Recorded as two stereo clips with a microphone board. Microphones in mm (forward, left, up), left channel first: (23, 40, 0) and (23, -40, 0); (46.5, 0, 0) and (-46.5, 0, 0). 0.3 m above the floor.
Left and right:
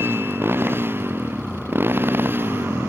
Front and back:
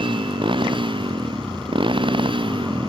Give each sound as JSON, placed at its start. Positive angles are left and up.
{"t": 0.0, "sound": "a motorcycle", "azimuth_deg": -150}